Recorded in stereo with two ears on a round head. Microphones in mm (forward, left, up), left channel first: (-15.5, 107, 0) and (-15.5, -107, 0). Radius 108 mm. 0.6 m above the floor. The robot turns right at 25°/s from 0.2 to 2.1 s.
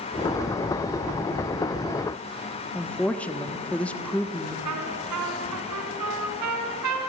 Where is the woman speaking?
5° left (ahead or behind), 1.1 m.